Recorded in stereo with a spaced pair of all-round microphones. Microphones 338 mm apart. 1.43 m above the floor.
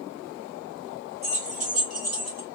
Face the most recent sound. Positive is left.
turn(degrees=-50)  # may be behind; listen again after turning